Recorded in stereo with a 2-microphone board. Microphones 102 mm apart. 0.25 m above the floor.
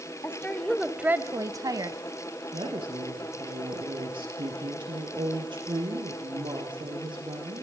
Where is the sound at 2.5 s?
50° right (ahead or behind), 5.5 m.